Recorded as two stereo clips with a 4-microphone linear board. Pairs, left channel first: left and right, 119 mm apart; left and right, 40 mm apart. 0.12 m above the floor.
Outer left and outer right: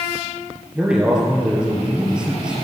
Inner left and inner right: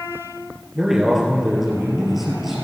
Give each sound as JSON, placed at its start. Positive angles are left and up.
{"t": 0.8, "sound": "a man speaking", "side_deg": -5, "distance_m": 2.5}